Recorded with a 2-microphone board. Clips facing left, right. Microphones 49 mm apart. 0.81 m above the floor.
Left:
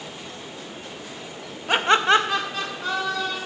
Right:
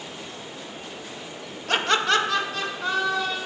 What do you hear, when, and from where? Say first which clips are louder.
1.7 s laughter: left 4 dB; 15° left (ahead or behind), 0.7 m; by 3.4 s 10° left (ahead or behind), 2 m